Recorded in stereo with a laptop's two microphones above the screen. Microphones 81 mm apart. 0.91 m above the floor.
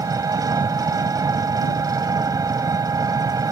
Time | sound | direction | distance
0.0 | an engine running | 50° right (ahead or behind) | ?